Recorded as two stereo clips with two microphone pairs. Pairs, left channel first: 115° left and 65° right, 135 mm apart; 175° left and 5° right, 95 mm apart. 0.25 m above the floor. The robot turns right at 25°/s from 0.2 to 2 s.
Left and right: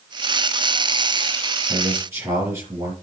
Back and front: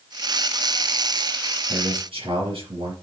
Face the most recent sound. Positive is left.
turn(degrees=0)